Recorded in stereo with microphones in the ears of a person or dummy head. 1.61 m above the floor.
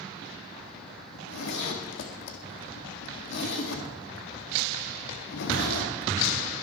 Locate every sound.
1.1 s a zipper: 55° left (ahead or behind), 1.8 m